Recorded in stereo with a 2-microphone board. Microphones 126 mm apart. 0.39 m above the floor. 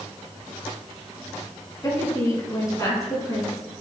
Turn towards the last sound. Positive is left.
turn(degrees=30)  # may be behind; listen again after turning